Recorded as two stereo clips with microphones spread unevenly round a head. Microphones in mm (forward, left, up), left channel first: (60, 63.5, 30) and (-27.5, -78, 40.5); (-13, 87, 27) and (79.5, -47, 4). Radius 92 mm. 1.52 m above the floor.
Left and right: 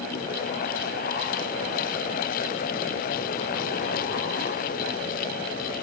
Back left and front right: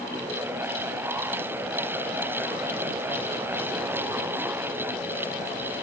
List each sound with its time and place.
Only background noise.